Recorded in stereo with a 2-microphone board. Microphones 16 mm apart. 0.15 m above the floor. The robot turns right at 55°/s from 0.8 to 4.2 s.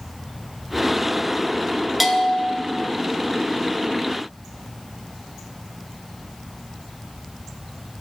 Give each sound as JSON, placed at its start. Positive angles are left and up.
{"t": 2.0, "sound": "a bell", "side_deg": 0, "distance_m": 0.9}